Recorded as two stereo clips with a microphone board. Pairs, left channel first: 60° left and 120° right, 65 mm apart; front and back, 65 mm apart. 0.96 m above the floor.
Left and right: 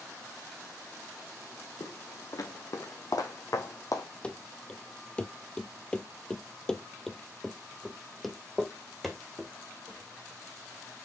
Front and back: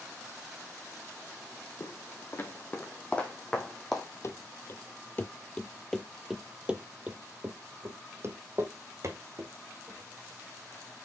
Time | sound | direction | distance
1.8 | footsteps | 40° left | 2 m
4.2 | running footsteps | 10° right | 1.3 m